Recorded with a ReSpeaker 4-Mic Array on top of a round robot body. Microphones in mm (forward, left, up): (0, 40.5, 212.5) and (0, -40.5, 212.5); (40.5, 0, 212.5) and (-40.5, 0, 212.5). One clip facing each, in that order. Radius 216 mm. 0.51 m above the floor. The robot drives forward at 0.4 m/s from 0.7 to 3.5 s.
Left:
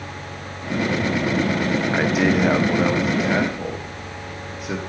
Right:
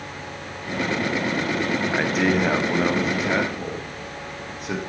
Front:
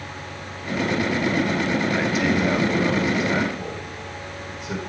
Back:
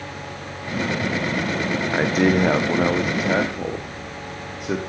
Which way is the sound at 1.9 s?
170° left.